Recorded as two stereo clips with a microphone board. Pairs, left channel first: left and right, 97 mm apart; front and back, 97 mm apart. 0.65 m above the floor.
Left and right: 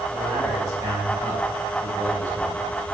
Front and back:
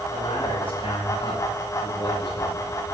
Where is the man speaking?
35° right, 4 m.